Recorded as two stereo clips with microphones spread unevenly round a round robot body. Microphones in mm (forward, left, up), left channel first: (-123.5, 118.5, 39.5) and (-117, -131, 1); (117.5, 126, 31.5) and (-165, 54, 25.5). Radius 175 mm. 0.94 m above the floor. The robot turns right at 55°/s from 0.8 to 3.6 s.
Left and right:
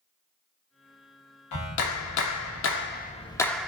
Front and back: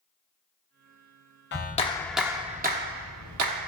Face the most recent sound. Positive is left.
turn(degrees=-175)